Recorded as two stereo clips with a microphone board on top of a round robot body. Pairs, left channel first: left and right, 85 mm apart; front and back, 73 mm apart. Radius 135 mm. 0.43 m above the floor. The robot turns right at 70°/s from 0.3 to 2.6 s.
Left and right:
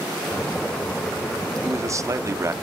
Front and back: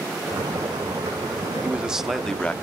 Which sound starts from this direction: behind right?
A man speaking, at 1.6 s.